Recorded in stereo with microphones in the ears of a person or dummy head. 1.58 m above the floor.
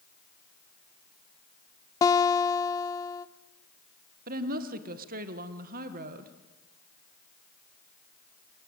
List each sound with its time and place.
2.0 s a guitar: 20° left (ahead or behind), 0.9 m
4.3 s a woman speaking: 50° right (ahead or behind), 1.5 m